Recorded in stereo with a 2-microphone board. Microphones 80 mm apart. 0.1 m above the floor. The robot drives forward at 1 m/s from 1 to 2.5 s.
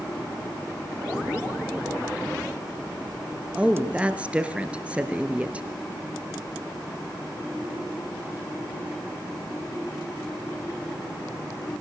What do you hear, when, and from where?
3.5 s a woman speaking: 15° right (ahead or behind), 1.8 m